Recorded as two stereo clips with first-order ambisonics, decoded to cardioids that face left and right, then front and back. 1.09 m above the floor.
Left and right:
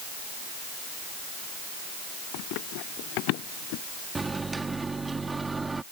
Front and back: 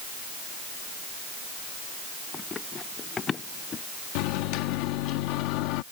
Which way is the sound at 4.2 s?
10° right.